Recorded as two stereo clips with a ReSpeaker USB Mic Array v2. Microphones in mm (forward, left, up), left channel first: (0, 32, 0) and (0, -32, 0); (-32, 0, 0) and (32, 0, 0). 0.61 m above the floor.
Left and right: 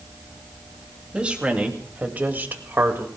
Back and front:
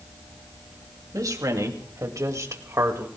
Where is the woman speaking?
20° right, 2.5 m; by 3.1 s 40° right, 2.0 m.